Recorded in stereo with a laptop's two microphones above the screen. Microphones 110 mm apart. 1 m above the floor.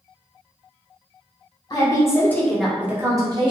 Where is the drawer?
No drawer in this recording.